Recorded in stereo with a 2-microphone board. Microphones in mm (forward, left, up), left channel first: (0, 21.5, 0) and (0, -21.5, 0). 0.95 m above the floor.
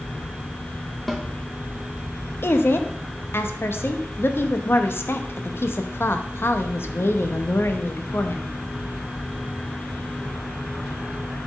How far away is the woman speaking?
About 0.8 m.